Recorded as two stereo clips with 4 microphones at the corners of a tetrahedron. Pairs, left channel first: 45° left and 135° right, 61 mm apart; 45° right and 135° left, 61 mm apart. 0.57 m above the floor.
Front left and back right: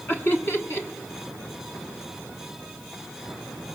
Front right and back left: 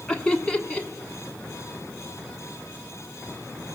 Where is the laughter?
20° left, 1.4 m.